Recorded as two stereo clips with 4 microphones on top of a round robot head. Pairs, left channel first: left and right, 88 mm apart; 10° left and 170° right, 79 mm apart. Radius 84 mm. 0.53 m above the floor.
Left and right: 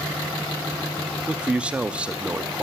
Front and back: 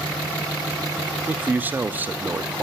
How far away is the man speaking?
About 0.7 m.